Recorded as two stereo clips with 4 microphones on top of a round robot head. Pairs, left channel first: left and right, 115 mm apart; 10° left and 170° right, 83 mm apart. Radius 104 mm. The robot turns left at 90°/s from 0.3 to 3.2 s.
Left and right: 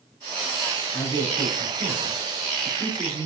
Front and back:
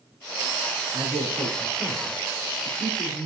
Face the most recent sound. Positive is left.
turn(degrees=-15)